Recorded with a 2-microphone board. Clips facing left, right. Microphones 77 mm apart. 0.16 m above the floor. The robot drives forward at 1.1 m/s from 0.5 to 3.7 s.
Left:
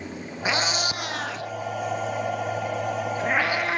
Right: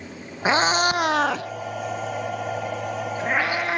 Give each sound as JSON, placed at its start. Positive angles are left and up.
{"t": 0.5, "sound": "a cat meowing", "side_deg": -35, "distance_m": 1.0}